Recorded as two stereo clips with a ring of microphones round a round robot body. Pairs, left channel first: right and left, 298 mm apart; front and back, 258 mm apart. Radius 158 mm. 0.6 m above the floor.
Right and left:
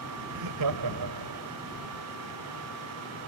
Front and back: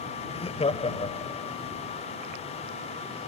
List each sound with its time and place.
0.3 s laughter: 70° left